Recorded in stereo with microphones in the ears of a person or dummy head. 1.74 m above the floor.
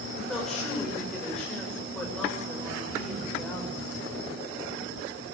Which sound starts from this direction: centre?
A woman speaking, at 0.1 s.